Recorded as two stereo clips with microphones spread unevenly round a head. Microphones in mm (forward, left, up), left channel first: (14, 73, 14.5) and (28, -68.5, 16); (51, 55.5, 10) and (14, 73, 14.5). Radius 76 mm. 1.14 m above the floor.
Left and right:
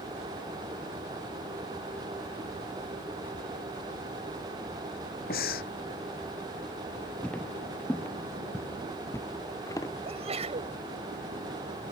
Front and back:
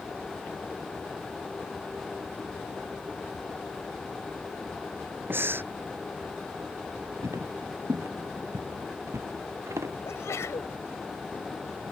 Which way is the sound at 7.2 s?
Straight behind.